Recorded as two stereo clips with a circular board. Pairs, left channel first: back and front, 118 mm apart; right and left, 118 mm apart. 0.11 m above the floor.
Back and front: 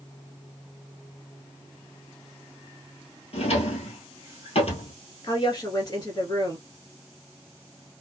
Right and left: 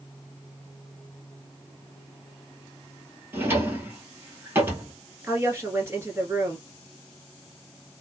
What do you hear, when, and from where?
3.3 s a drawer: 160° left, 1.1 m
5.2 s a woman speaking: 145° left, 1.9 m